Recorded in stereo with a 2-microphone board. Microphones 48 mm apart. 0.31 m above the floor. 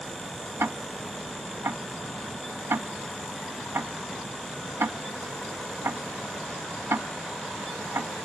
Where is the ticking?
65° right (ahead or behind), 0.6 m.